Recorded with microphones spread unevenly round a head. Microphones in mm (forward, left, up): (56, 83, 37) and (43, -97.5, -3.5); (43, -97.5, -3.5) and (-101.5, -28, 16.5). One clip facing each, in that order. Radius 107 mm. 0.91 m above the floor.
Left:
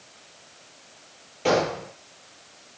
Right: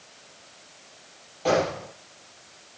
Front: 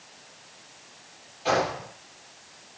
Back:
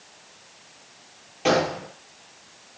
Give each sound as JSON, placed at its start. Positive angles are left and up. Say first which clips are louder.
{"t": 1.4, "sound": "a gunshot", "louder": "left 1 dB, back 4 dB", "azimuth_deg": 155, "distance_m": 7.0}